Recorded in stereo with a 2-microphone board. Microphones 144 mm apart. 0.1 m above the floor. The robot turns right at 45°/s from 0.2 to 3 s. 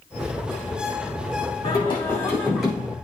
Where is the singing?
135° left, 5 m; by 2.9 s 170° right, 5 m.